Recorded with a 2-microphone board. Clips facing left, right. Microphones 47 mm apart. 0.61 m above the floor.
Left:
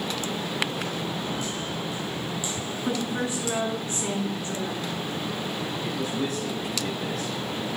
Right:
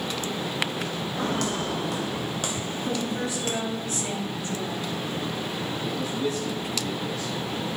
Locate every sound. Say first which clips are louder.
1.2 s footsteps: right 4 dB; 75° right (ahead or behind), 1.9 m; by 3.6 s 45° right (ahead or behind), 0.8 m
2.9 s a woman speaking: left 2 dB; 35° left (ahead or behind), 7 m
5.8 s a man speaking: right 1 dB; 55° left (ahead or behind), 4.5 m